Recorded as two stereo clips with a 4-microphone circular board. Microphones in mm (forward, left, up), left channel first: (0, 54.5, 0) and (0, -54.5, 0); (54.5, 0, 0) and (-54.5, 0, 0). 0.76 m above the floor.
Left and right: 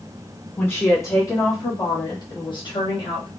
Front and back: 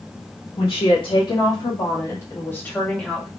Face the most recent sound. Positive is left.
turn(degrees=90)